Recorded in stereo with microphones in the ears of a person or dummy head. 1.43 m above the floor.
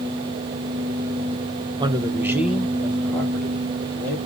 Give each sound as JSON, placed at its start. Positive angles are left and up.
{"t": 1.8, "sound": "a man speaking", "side_deg": -30, "distance_m": 0.6}